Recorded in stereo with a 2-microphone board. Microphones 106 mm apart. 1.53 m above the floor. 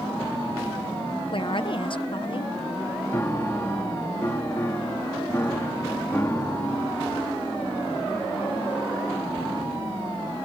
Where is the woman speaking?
50° left (ahead or behind).